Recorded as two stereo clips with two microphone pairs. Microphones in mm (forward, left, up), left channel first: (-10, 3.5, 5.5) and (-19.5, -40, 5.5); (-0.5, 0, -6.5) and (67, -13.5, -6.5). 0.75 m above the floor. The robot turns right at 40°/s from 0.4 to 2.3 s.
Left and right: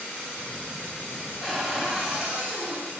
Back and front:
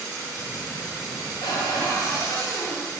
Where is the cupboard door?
170° left, 1.6 m; by 2.9 s 155° right, 1.6 m.